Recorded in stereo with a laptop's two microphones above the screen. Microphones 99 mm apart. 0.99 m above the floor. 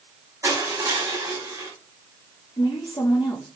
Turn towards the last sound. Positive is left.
turn(degrees=50)  # may be behind; listen again after turning